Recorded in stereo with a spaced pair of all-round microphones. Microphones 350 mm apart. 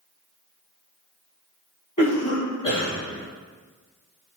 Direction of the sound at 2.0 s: 70° left (ahead or behind).